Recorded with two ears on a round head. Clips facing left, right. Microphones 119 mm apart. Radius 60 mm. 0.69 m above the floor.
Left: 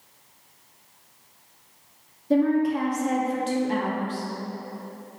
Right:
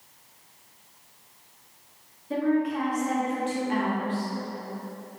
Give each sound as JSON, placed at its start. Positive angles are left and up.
{"t": 2.3, "sound": "a woman speaking", "side_deg": 40, "distance_m": 0.7}